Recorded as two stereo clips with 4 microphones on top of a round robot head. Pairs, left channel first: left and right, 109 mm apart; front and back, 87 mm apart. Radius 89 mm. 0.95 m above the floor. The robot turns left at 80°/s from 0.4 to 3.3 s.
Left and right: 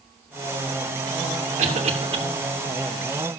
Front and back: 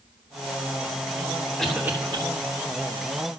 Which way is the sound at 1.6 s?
85° right.